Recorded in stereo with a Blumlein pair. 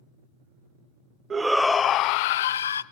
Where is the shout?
20° right, 0.5 m; by 2.8 s 70° left, 0.9 m.